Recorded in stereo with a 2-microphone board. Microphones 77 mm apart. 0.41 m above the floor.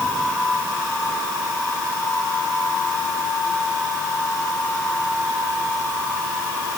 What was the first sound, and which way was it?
Only background noise.